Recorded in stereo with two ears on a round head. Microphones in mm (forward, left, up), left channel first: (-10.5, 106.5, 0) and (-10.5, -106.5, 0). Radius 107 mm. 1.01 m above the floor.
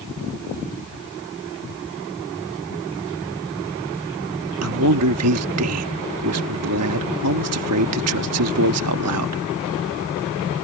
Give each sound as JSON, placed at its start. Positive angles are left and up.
{"t": 4.6, "sound": "a man speaking", "side_deg": -75}